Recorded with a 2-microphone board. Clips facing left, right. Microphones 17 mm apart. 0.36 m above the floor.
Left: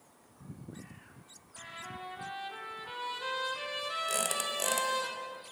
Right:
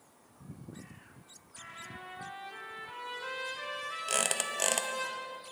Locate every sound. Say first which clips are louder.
1.6 s a trumpet: left 2 dB; 80° left, 2.5 m
4.1 s a squeak: right 4 dB; 30° right (ahead or behind), 0.7 m